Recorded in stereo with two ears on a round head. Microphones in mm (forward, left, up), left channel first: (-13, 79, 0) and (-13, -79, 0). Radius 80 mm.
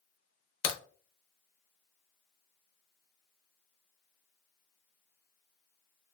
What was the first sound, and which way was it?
A crack, 50° left (ahead or behind).